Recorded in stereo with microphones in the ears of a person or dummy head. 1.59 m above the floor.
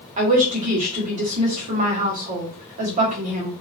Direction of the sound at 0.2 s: 40° right (ahead or behind).